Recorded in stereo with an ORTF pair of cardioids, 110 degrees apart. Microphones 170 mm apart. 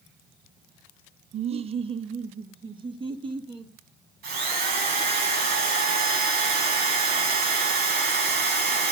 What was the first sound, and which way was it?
Laughter, 40° right.